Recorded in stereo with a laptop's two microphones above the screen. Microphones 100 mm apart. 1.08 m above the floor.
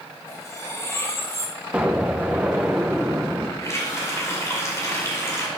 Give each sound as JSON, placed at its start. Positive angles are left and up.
{"t": 0.3, "sound": "cutlery clinking", "side_deg": 25, "distance_m": 1.1}
{"t": 1.7, "sound": "an explosion", "side_deg": -10, "distance_m": 0.6}
{"t": 3.6, "sound": "a running tap", "side_deg": 30, "distance_m": 2.0}